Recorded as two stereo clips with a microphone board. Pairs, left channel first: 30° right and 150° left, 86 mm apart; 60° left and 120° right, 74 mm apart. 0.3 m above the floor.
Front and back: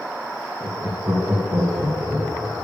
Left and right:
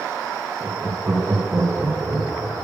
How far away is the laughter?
About 1.8 m.